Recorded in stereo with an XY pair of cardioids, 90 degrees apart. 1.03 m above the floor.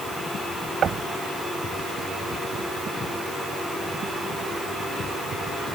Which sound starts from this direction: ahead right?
Knocking, at 0.8 s.